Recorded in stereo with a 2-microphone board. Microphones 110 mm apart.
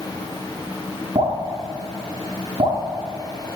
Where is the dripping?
70° right (ahead or behind), 6 m.